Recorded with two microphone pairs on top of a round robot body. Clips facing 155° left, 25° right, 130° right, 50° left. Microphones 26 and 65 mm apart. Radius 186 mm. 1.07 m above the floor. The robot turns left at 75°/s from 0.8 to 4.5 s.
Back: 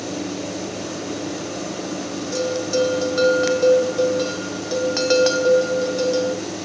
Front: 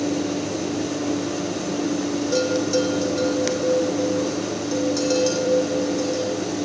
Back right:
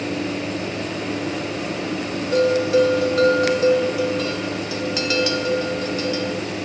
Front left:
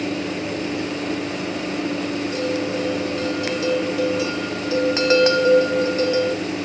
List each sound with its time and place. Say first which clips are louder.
2.3 s a bell: even, back right 11 dB; 90° right, 4 m; by 6.4 s 105° left, 4 m